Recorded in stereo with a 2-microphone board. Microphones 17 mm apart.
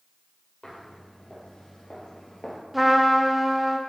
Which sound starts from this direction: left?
Footsteps, at 0.6 s.